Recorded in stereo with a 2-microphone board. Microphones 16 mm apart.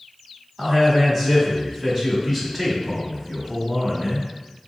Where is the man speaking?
25° right (ahead or behind), 1.1 m.